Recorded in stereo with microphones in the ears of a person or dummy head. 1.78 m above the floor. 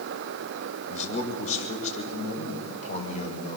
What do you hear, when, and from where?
0.9 s a man speaking: 40° left (ahead or behind), 6 m